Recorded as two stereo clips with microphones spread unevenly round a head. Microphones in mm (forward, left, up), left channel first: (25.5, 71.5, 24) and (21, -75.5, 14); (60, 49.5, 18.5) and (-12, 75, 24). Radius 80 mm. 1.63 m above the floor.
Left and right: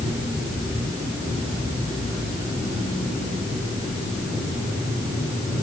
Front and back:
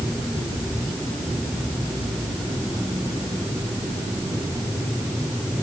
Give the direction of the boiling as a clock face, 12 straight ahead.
I don't hear boiling.